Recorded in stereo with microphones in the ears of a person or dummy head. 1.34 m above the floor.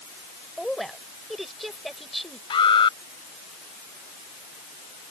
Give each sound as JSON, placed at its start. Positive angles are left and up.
{"t": 0.6, "sound": "a woman speaking", "side_deg": 0}
{"t": 2.5, "sound": "an alarm", "side_deg": 25}